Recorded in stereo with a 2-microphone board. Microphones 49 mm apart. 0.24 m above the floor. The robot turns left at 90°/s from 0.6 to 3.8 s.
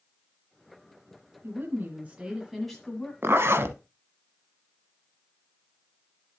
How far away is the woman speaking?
About 1.5 m.